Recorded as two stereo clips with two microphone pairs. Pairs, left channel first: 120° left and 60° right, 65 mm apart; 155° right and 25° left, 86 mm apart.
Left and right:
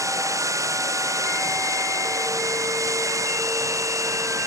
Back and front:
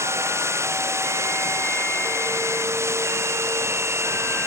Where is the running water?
30° right.